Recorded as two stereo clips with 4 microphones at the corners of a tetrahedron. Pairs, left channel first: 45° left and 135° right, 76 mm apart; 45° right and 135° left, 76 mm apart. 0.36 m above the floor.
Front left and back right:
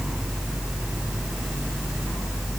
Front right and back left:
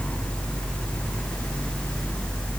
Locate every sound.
Only background noise.